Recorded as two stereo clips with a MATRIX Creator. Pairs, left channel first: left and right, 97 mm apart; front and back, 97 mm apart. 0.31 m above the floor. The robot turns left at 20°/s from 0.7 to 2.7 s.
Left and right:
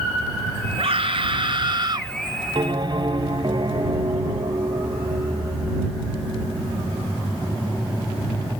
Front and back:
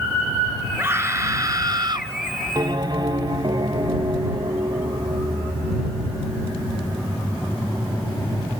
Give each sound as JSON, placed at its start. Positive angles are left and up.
{"t": 0.8, "sound": "a scream", "azimuth_deg": -110}
{"t": 2.5, "sound": "a bell", "azimuth_deg": -130}